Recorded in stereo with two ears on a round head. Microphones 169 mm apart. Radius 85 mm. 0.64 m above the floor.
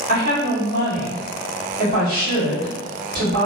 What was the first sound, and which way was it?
A woman speaking, 50° right (ahead or behind).